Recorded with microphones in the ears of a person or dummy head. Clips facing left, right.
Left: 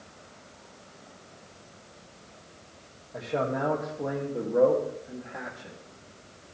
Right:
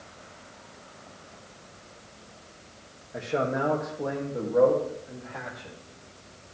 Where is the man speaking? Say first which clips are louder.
Right 1 dB; 10° right (ahead or behind), 2.5 m; by 5.8 s 15° left (ahead or behind), 3.5 m.